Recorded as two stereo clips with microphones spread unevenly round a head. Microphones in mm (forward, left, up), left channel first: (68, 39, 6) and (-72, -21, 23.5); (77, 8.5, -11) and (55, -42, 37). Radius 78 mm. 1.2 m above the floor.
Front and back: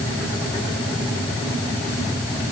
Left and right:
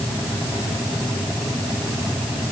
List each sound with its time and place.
Only background noise.